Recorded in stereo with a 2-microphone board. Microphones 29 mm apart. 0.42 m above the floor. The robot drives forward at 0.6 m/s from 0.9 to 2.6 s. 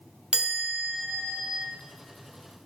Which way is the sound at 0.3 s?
40° right (ahead or behind).